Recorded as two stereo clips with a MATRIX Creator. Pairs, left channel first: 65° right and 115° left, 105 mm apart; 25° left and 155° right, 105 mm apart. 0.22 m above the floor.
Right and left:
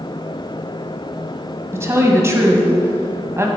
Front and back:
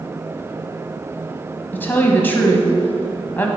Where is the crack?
No crack in this recording.